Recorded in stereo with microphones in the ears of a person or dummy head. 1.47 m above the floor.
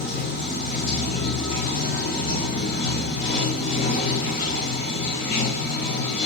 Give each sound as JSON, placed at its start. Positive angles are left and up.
{"t": 0.0, "sound": "running water", "side_deg": 35, "distance_m": 7.0}